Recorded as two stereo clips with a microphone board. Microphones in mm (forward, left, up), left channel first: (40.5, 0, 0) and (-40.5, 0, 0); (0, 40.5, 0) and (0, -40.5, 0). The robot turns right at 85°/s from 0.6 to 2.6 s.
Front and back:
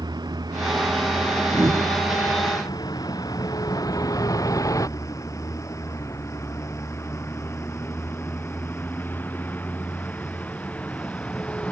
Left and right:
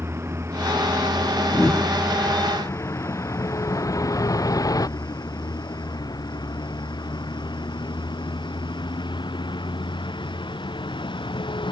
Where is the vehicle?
150° right; by 11.7 s 75° left.